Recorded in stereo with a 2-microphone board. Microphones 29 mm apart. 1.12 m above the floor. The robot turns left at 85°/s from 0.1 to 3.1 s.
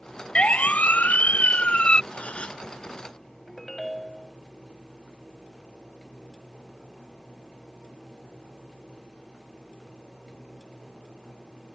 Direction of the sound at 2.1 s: 70° left.